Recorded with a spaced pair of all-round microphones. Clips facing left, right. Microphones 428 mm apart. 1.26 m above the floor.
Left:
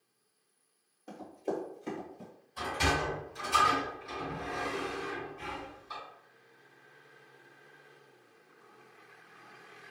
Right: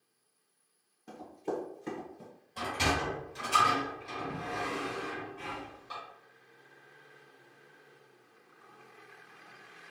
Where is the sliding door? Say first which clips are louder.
Even; 80° right, 1.3 m.